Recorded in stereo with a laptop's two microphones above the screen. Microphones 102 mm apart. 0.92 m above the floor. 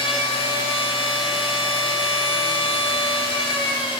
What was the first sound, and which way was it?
A machine running, 60° left (ahead or behind).